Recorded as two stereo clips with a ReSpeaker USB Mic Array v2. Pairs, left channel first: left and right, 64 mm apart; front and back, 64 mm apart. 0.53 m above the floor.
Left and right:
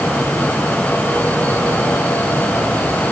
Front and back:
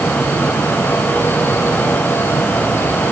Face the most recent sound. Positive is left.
No sound to turn to.